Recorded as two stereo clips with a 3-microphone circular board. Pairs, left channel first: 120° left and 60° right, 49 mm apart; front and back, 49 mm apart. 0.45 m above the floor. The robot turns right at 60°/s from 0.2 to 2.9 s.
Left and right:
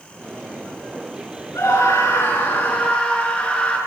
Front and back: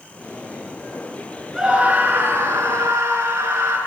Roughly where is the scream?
Left.